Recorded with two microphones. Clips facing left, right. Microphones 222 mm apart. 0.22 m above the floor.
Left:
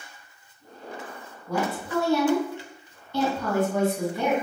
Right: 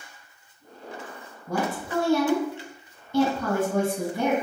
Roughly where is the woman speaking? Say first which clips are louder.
Even; right.